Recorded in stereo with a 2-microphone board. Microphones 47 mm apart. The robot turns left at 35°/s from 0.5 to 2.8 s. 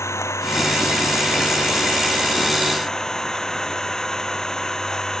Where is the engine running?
90° left; by 5.2 s 10° left.